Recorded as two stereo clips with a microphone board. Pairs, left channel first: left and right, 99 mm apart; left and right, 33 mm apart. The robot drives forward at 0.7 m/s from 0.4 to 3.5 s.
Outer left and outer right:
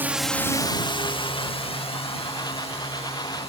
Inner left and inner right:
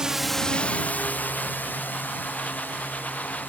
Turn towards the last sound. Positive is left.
turn(degrees=85)